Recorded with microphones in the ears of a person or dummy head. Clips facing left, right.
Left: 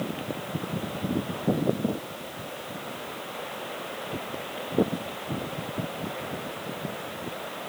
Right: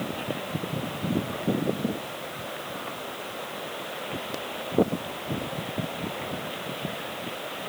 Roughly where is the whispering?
No whispering in this recording.